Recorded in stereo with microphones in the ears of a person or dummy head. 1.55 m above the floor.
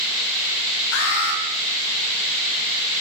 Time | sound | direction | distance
0.9 | an alarm | 75° left (ahead or behind) | 5 m